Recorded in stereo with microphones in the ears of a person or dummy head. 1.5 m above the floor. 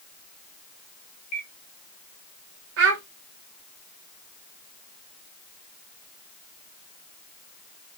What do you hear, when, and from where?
1.3 s a bird: 50° left (ahead or behind), 1.0 m
2.8 s a child speaking: 65° right (ahead or behind), 0.9 m